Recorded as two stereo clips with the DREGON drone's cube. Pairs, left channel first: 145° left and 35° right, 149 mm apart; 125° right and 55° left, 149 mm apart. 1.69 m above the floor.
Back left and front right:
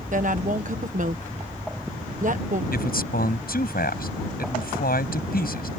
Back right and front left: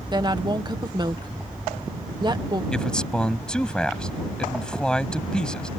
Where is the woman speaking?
5° right.